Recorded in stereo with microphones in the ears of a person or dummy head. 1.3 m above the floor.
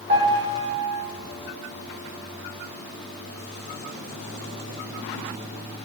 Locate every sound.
0.1 s a piano: 35° right (ahead or behind), 0.6 m